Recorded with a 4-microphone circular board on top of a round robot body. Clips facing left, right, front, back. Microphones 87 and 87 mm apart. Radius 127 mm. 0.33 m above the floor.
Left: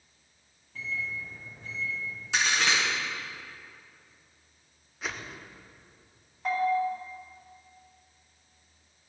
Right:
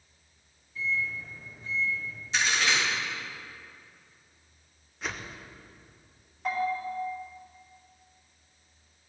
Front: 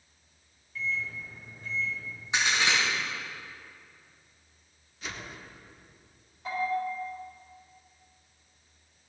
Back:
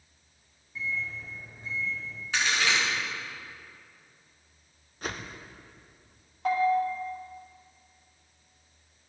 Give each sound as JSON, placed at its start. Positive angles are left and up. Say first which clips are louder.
{"t": 0.8, "sound": "a microwave", "louder": "right 4 dB, even", "azimuth_deg": 110, "distance_m": 3.5}
{"t": 2.3, "sound": "a crack", "louder": "even, even", "azimuth_deg": 70, "distance_m": 4.5}
{"t": 5.0, "sound": "a whoosh", "louder": "even, back 4 dB", "azimuth_deg": 180, "distance_m": 1.0}
{"t": 6.5, "sound": "a bell", "louder": "left 3 dB, back 6 dB", "azimuth_deg": 175, "distance_m": 3.5}